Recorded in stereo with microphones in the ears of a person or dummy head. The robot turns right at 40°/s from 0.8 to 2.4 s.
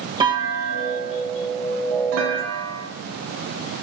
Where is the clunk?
155° right, 1.6 m; by 2.9 s 90° right, 1.6 m.